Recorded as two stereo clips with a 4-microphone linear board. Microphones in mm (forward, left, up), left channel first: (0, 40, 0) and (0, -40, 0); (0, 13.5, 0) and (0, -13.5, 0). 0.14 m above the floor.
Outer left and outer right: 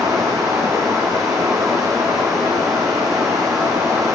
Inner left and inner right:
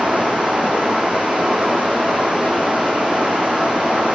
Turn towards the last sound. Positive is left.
turn(degrees=-50)  # may be behind; listen again after turning